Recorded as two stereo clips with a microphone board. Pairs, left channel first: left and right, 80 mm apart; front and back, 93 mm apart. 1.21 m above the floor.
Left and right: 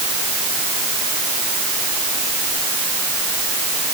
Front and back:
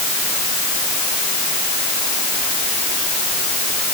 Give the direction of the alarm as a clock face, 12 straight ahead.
I don't hear an alarm.